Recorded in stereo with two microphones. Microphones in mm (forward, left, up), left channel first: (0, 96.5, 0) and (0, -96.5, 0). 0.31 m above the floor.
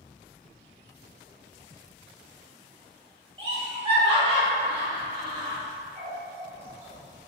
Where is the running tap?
50° right (ahead or behind), 1.1 m.